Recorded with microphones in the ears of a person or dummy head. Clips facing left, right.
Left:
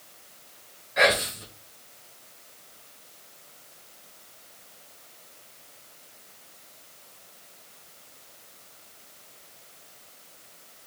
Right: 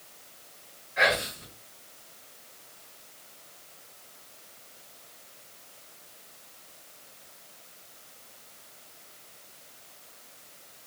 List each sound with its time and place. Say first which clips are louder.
1.0 s whispering: left 4 dB; 60° left (ahead or behind), 0.7 m